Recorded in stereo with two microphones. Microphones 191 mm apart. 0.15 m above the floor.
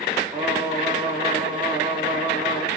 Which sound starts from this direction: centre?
Singing, at 0.3 s.